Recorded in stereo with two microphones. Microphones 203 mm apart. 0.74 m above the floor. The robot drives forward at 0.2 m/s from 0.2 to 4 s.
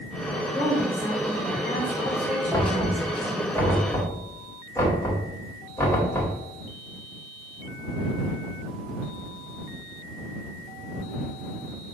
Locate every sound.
0.5 s a woman speaking: 20° left (ahead or behind), 2.5 m; by 3.5 s 15° left (ahead or behind), 3 m
2.5 s knocking: 15° left (ahead or behind), 2 m; by 6.3 s 10° left (ahead or behind), 2.5 m